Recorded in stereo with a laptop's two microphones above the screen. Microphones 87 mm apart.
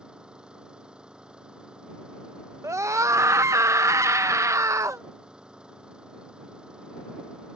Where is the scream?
35° right (ahead or behind).